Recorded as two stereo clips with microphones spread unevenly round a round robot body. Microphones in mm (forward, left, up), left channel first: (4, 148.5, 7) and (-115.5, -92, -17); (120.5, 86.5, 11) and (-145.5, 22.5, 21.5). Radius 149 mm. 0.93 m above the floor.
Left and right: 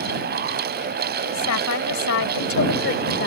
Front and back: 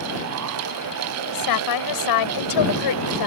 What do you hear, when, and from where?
1.2 s a woman speaking: 20° left; by 3.3 s 5° left